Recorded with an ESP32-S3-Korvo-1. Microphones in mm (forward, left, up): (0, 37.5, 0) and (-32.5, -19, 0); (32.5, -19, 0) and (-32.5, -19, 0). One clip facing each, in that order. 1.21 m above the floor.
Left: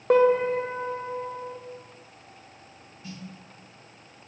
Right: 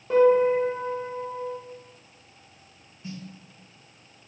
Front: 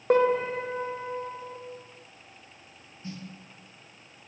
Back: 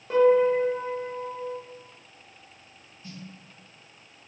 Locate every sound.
0.1 s a piano: 35° left, 0.9 m
3.0 s a snare drum: 60° right, 1.9 m